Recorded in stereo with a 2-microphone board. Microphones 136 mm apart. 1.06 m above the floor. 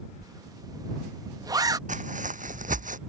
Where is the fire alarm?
No fire alarm in this recording.